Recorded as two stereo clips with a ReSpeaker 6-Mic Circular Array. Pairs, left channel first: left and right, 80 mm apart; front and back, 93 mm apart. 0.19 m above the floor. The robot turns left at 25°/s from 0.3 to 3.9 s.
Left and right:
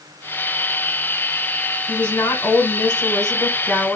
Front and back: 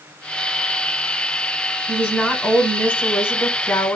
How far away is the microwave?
No microwave in this recording.